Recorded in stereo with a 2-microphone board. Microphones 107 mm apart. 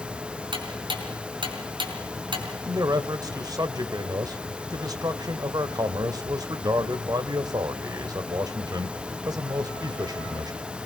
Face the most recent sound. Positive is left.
turn(degrees=-35)  # may be behind; listen again after turning